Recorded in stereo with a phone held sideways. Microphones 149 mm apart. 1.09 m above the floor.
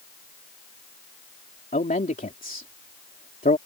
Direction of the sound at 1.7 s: 75° left (ahead or behind).